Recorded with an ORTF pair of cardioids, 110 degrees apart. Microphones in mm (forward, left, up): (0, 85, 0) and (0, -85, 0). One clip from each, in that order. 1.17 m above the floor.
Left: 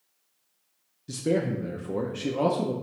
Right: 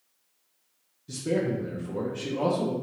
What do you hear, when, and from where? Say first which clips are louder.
1.1 s a man speaking: left 1 dB; 25° left, 0.5 m